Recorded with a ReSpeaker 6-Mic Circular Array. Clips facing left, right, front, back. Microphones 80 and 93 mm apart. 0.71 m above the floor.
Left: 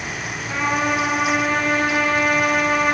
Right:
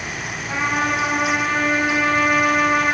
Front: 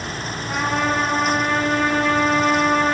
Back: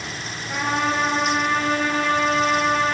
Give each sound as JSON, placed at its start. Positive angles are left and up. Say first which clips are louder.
{"t": 0.5, "sound": "a trumpet", "louder": "even, front 1 dB", "azimuth_deg": -10, "distance_m": 2.0}